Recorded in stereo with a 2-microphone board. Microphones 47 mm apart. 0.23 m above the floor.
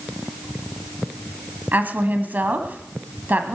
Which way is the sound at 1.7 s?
40° right (ahead or behind).